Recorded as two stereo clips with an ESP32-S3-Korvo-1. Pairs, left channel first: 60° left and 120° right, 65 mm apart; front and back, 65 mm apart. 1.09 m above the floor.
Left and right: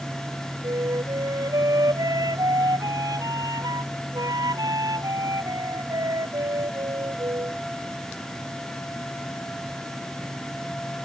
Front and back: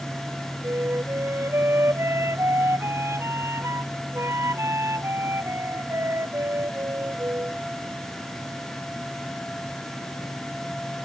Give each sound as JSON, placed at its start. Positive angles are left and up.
{"t": 0.6, "sound": "a flute", "azimuth_deg": -135}